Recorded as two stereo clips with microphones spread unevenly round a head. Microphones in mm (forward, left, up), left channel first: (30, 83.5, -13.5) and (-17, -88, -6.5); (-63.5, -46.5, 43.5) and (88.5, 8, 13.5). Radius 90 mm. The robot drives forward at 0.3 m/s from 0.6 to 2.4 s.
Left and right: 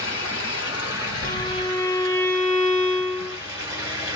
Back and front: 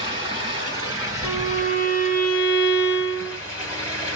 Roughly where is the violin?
Behind left.